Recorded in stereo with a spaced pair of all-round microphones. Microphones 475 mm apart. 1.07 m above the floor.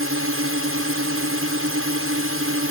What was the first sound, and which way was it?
A drone, 25° right (ahead or behind).